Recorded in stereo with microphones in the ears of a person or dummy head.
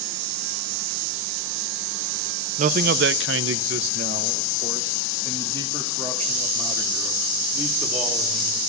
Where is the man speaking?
40° right (ahead or behind), 0.7 m; by 8.6 s 20° right (ahead or behind), 3.5 m.